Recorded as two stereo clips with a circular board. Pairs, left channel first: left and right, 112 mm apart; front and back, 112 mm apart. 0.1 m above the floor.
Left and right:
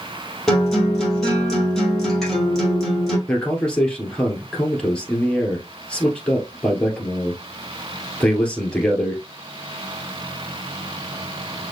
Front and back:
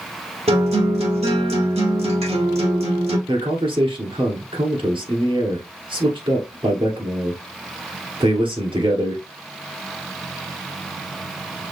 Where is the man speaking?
170° left, 1.8 m.